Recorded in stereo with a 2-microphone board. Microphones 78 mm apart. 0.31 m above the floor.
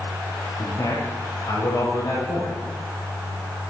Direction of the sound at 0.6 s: 60° left (ahead or behind).